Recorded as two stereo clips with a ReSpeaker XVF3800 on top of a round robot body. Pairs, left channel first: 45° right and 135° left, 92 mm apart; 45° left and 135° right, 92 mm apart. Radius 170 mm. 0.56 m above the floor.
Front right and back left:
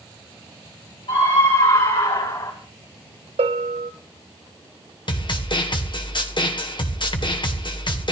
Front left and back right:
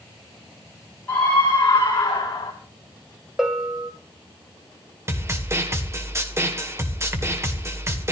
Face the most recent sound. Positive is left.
turn(degrees=-75)